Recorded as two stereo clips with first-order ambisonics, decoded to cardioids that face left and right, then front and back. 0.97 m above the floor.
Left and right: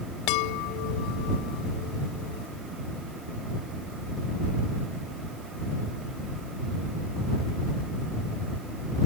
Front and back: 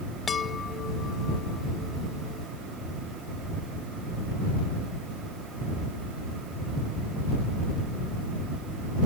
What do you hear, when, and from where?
0.3 s a chime: 70° left